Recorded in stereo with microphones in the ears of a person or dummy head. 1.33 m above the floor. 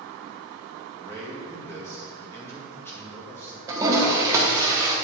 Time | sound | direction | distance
1.0 | a man speaking | 10° left (ahead or behind) | 1.8 m
3.7 | a toilet flushing | 15° right (ahead or behind) | 1.0 m